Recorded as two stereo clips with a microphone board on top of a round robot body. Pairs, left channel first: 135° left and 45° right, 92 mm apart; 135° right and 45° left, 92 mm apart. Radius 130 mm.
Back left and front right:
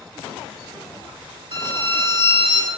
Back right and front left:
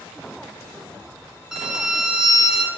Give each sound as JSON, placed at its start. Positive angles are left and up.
{"t": 1.5, "sound": "a violin", "azimuth_deg": -40, "distance_m": 4.0}